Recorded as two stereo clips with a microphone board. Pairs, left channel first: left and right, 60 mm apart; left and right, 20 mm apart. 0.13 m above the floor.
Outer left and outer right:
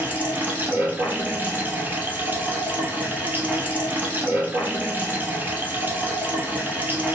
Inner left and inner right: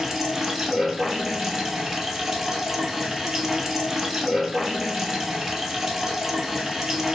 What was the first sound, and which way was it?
Running water, 30° right (ahead or behind).